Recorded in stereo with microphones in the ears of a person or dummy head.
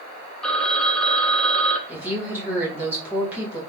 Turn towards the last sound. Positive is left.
turn(degrees=-5)  # may be behind; listen again after turning